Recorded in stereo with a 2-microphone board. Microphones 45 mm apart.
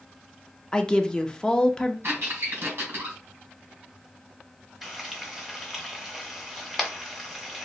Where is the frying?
10° right (ahead or behind), 1.1 m.